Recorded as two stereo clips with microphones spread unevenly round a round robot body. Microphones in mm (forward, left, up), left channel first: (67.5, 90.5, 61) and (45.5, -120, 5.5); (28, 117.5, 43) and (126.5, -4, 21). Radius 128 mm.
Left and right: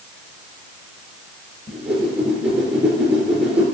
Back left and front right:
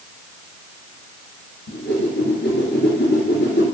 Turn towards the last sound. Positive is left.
turn(degrees=175)